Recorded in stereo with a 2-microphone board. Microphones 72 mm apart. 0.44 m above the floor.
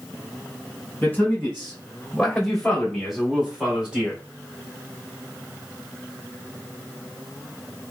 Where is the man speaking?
25° left (ahead or behind), 1.6 m; by 4.2 s 15° right (ahead or behind), 1.6 m.